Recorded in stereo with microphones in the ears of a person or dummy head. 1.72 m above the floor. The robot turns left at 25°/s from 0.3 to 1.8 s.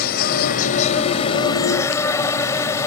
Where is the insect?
55° left; by 2.9 s 20° left.